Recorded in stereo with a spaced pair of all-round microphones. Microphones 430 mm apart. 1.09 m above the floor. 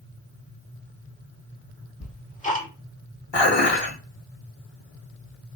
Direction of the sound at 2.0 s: 20° left (ahead or behind).